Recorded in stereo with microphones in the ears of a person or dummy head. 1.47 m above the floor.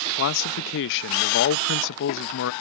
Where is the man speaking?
60° left (ahead or behind).